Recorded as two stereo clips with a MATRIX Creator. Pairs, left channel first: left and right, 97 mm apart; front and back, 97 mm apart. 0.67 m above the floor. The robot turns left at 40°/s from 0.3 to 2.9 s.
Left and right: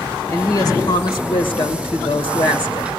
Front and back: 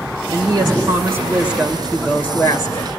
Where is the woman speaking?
150° left, 2 m; by 2.9 s 45° left, 2 m.